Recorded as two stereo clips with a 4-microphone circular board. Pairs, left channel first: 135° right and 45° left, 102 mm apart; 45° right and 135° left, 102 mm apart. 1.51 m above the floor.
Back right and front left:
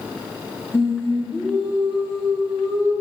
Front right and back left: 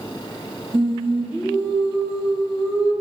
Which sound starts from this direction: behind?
Singing, at 0.7 s.